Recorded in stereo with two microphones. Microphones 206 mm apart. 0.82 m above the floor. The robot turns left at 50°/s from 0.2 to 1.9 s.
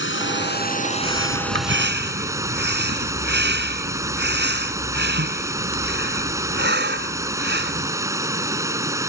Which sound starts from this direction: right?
Breathing, at 1.0 s.